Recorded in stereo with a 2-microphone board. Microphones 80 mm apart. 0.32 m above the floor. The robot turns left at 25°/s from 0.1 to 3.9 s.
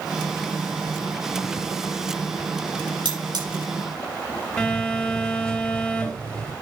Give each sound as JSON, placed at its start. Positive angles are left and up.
{"t": 3.0, "sound": "cutlery clinking", "side_deg": -75, "distance_m": 5.5}
{"t": 4.6, "sound": "a phone buzzing", "side_deg": 10, "distance_m": 6.0}